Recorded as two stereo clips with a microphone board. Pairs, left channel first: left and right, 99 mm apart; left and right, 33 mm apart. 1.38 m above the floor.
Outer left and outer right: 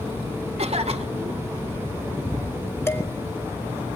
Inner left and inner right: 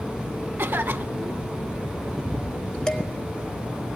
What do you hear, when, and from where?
0.6 s a cough: 80° right, 1.4 m
2.9 s dishes clattering: 25° left (ahead or behind), 1.6 m